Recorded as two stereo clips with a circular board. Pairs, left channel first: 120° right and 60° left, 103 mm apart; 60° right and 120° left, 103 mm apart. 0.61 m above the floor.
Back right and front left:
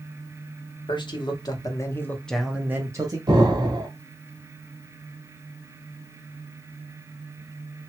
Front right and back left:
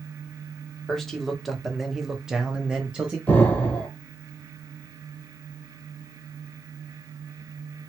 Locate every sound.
0.9 s a man speaking: 145° right, 1.0 m; by 3.2 s 50° left, 0.7 m
3.3 s an explosion: 15° left, 1.0 m